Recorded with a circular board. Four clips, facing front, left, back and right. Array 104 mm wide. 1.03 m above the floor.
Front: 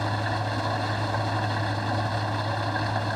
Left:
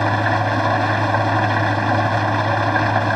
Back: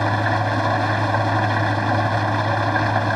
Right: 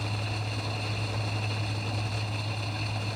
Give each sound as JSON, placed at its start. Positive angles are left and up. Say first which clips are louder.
{"t": 0.0, "sound": "an engine running", "louder": "left 18 dB, back 8 dB", "azimuth_deg": 115}